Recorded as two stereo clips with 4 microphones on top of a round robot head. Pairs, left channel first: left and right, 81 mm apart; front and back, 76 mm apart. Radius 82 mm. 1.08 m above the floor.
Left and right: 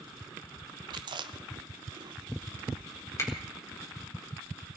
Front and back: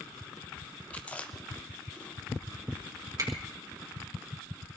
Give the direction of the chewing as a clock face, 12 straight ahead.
2 o'clock.